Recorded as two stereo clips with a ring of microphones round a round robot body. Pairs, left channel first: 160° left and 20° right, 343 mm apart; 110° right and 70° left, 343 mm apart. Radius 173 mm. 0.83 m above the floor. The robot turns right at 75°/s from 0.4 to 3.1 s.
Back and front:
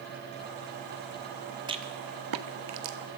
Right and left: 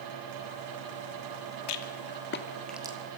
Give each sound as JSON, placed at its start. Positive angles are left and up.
{"t": 1.7, "sound": "a rattle", "azimuth_deg": -100, "distance_m": 1.7}